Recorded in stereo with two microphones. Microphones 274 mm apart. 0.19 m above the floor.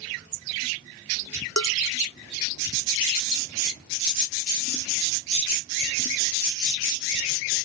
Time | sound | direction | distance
1.6 | dishes clattering | 75° left (ahead or behind) | ?